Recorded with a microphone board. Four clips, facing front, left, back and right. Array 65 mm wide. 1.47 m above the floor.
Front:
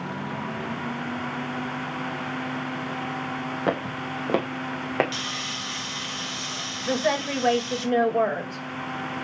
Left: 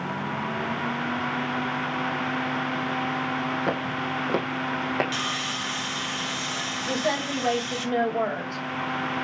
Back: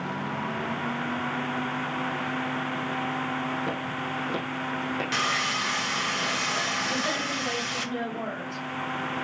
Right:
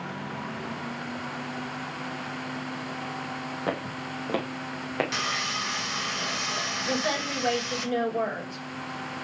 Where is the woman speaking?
10° left, 6 m.